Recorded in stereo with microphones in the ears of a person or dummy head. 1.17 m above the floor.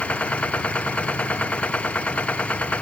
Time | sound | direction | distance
0.0 | a machine running | 5° left (ahead or behind) | ?